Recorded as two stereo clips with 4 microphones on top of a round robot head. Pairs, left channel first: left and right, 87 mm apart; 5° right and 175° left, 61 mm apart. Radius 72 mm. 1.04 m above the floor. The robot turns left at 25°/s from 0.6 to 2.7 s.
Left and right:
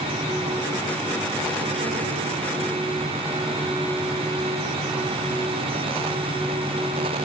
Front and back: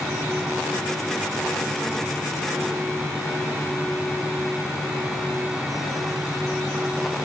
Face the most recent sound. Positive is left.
No sound to turn to.